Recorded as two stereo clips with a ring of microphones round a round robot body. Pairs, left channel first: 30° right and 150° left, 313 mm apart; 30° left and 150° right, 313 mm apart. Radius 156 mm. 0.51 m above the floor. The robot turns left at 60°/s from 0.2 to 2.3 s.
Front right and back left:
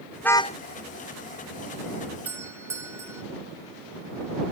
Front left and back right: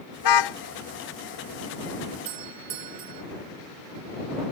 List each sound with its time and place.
0.2 s a car horn: 60° left; by 0.6 s 35° left
2.2 s a doorbell: 125° right; by 3.2 s 130° right